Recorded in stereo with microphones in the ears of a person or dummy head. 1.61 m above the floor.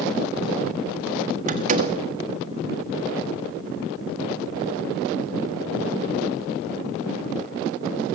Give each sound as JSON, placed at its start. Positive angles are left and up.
{"t": 1.5, "sound": "a door slam", "side_deg": -35, "distance_m": 1.6}